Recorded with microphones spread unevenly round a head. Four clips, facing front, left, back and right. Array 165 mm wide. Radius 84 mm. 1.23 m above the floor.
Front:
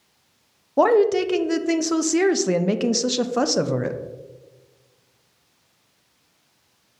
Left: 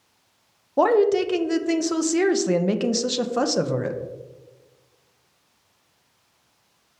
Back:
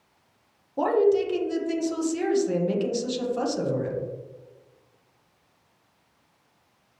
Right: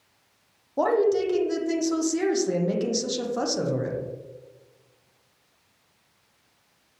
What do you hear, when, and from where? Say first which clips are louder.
0.8 s a woman speaking: left 4 dB, front 4 dB; 30° left, 0.6 m